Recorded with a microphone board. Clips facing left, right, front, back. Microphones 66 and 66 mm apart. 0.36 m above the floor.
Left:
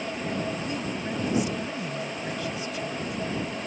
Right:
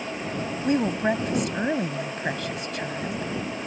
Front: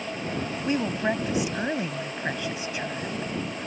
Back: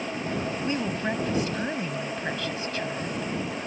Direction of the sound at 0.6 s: 75° right.